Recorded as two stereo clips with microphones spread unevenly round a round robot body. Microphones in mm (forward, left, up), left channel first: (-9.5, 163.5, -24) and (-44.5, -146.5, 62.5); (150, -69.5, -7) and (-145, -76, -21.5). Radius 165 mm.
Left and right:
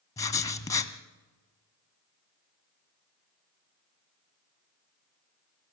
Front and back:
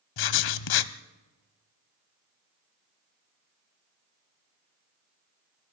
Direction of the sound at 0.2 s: 5° left.